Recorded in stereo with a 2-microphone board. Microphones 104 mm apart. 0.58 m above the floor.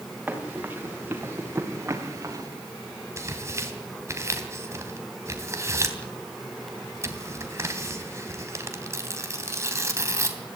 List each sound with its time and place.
0.3 s running footsteps: 15° right (ahead or behind), 6 m; by 2.5 s 35° right (ahead or behind), 4 m
3.2 s tearing paper: 30° right (ahead or behind), 3 m